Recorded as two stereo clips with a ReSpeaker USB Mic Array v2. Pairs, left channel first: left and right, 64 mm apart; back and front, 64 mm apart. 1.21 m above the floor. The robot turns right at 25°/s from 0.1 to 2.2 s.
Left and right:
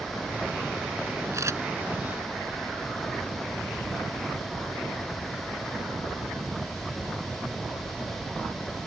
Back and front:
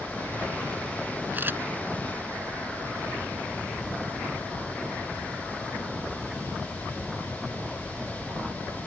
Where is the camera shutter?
60° right; by 1.6 s 55° right.